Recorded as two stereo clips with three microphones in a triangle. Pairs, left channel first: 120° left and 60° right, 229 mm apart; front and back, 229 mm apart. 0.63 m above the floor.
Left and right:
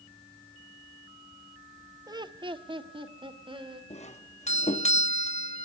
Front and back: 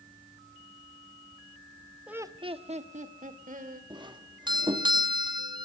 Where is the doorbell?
135° left, 1.1 m.